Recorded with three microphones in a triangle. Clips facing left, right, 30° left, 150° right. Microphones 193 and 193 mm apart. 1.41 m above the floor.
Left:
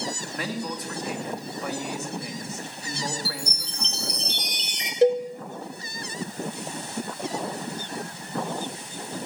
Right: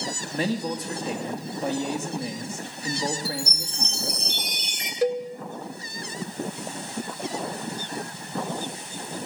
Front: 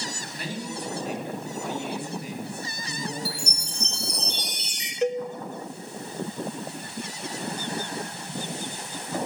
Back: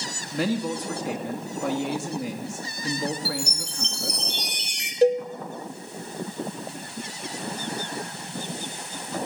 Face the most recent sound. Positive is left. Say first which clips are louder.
# left 5 dB, back 6 dB
turn(degrees=155)